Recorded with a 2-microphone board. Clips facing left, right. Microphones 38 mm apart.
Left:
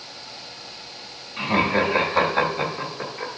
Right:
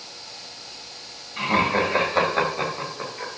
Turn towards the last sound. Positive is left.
turn(degrees=-5)  # may be behind; listen again after turning